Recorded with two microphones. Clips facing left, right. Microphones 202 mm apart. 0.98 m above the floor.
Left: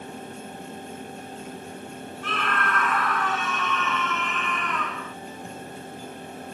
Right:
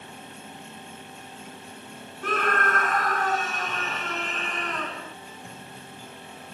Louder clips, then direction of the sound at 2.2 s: Right 4 dB; 45° right (ahead or behind).